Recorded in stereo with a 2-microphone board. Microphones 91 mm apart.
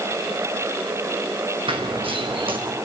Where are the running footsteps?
75° right (ahead or behind), 4 m.